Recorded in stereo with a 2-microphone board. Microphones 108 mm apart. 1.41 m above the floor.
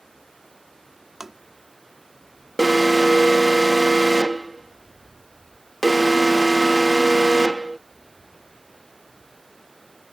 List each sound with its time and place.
0.0 s running water: centre (ahead or behind)
1.2 s tapping: centre (ahead or behind)
2.6 s an alarm: centre (ahead or behind)